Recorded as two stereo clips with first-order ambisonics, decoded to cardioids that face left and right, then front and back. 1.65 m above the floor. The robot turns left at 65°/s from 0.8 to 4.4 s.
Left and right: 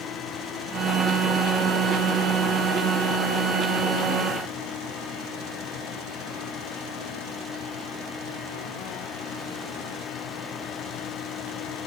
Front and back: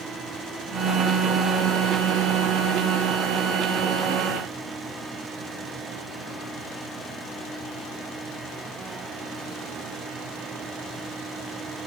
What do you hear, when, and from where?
Only background noise.